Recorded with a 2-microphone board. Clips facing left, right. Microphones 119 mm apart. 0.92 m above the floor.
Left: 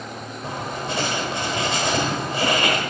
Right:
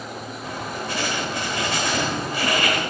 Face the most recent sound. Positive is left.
turn(degrees=25)  # may be behind; listen again after turning